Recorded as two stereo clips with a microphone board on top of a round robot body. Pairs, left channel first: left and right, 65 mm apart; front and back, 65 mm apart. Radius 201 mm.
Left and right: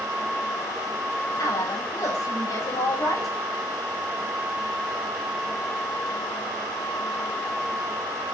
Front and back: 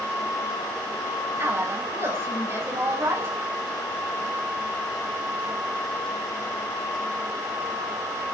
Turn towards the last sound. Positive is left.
turn(degrees=125)